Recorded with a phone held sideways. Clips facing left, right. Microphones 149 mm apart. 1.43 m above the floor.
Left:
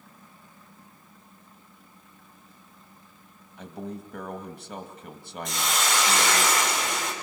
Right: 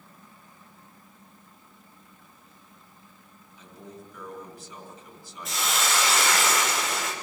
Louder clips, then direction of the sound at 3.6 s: Left 8 dB; 70° left (ahead or behind).